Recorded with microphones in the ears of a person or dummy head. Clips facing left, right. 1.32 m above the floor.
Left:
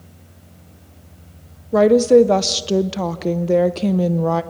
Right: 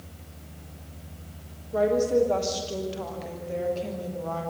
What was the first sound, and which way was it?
A woman speaking, 75° left (ahead or behind).